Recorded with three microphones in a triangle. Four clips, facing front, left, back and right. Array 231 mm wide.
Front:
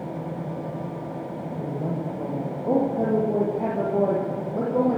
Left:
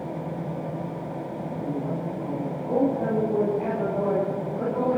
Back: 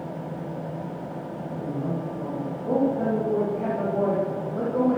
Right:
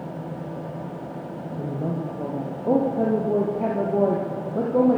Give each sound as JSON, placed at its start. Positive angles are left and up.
{"t": 1.6, "sound": "a woman speaking", "azimuth_deg": -65, "distance_m": 5.5}